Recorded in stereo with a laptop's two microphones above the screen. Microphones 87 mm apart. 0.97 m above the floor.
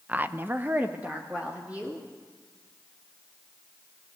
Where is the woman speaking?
15° right (ahead or behind), 0.7 m.